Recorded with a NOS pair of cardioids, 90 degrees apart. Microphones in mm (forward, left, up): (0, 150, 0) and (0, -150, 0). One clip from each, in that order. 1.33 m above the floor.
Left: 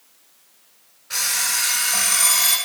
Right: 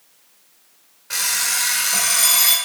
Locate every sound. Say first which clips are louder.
1.1 s an alarm clock: right 1 dB; 30° right, 1.5 m